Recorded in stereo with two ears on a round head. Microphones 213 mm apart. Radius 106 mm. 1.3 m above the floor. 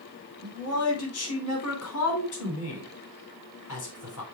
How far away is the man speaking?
About 4.5 m.